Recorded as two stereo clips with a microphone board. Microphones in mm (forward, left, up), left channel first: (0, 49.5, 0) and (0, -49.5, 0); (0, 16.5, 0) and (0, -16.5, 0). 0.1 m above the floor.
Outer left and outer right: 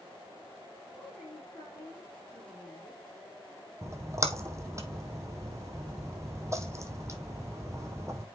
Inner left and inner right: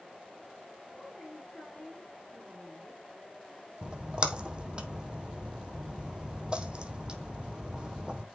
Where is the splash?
30° right (ahead or behind), 1.0 m.